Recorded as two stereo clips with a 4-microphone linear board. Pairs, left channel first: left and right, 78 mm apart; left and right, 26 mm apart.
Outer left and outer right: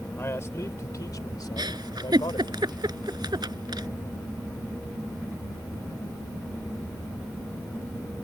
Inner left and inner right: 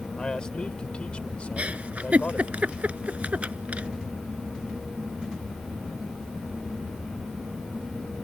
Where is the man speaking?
35° left (ahead or behind); by 2.6 s 80° left.